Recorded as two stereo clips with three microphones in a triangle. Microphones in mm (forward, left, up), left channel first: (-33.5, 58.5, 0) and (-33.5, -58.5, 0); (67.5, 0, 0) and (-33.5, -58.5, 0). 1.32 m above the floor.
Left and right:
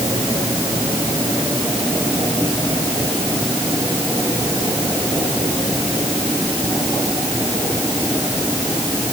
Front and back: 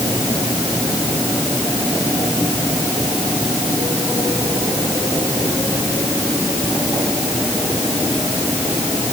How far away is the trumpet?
I don't hear a trumpet.